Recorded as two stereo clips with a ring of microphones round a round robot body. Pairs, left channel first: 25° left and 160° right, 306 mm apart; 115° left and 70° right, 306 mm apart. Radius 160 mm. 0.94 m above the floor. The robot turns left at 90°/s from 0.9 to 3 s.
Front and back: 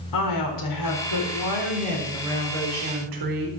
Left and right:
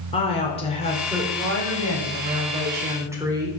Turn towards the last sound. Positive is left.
turn(degrees=-150)